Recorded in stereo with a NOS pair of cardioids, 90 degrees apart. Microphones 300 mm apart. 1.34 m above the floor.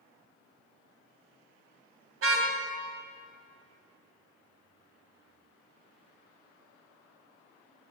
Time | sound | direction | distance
2.2 | a car horn | 55° right | 3 m